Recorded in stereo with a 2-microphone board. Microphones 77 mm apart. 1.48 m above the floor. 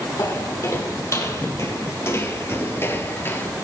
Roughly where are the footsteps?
Left.